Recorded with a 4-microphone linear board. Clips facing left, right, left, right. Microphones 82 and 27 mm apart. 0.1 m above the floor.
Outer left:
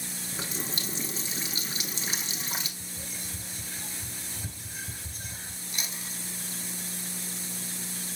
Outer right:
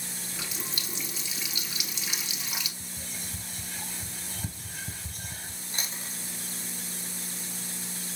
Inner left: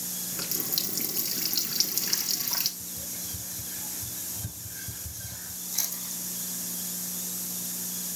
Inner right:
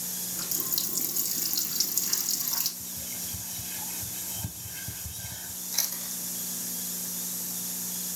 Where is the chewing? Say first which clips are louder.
Outer right 1 dB, inner right 2 dB; 35° right (ahead or behind), 2.0 m.